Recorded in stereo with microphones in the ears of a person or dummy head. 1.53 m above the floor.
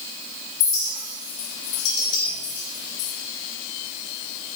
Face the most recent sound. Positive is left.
turn(degrees=40)  # may be behind; listen again after turning